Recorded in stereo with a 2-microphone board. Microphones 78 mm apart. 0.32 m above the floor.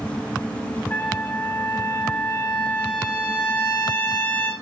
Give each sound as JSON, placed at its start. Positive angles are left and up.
{"t": 0.9, "sound": "a trumpet", "side_deg": 25, "distance_m": 4.0}